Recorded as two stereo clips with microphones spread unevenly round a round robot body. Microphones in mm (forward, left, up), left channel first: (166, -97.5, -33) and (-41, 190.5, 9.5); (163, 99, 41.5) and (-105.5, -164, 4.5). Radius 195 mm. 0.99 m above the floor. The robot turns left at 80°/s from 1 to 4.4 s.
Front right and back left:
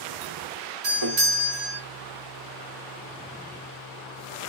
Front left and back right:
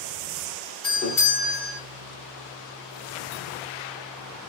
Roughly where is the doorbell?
Behind left.